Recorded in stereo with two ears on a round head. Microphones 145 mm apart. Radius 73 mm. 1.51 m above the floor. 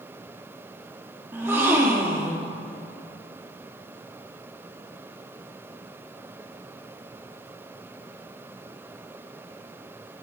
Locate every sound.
1.3 s a gasp: 15° right (ahead or behind), 1.4 m